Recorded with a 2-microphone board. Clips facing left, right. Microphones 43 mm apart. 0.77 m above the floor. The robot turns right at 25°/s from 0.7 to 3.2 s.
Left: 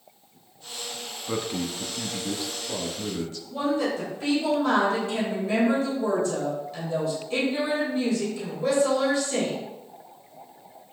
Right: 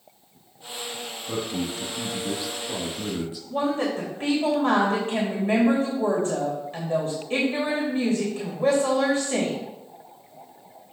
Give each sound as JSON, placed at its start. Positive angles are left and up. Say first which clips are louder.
{"t": 1.3, "sound": "a man speaking", "louder": "even", "side_deg": 25, "distance_m": 1.2}
{"t": 3.5, "sound": "a woman speaking", "louder": "right 1 dB", "side_deg": -40, "distance_m": 3.0}